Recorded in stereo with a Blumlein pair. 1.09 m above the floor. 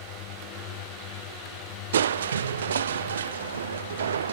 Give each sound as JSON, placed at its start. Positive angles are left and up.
{"t": 0.0, "sound": "a drone", "azimuth_deg": 40}
{"t": 1.9, "sound": "crushing", "azimuth_deg": -65}